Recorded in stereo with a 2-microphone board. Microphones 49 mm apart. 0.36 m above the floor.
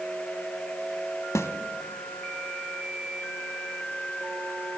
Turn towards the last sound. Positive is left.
turn(degrees=75)  # may be behind; listen again after turning